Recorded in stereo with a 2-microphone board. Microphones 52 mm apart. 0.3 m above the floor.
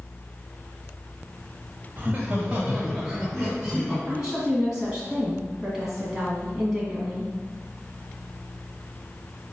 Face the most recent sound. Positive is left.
turn(degrees=-10)  # may be behind; listen again after turning